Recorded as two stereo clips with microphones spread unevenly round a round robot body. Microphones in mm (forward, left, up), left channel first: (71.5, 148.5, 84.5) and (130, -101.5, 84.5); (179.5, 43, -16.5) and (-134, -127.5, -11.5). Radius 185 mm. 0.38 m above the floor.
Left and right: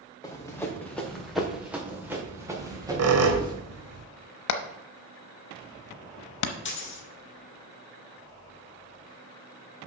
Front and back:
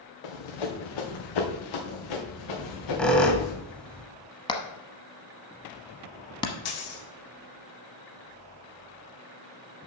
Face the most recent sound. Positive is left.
turn(degrees=60)